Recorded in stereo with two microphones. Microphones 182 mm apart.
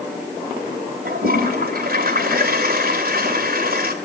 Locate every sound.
1.1 s a toilet flushing: 60° right (ahead or behind), 2.5 m